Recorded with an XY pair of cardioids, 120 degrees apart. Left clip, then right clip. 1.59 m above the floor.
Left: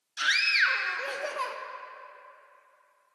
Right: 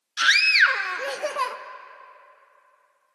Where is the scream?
40° right, 0.6 m.